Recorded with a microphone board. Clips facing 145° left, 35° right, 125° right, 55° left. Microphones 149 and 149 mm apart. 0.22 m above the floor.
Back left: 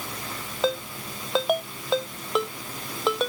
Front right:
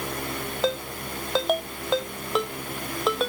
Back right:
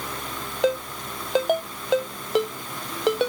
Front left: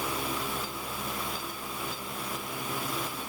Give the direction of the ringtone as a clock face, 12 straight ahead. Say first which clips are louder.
Back left 1 dB, back right 13 dB; 4 o'clock.